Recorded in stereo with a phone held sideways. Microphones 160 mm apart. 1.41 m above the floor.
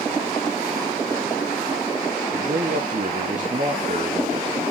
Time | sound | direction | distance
2.3 | a man speaking | 50° right (ahead or behind) | 0.9 m